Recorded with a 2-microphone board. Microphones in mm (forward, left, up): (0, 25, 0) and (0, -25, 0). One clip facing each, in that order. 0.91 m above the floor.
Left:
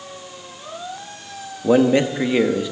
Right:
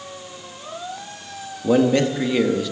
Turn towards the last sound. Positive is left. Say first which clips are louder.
# left 2 dB
turn(degrees=20)  # may be behind; listen again after turning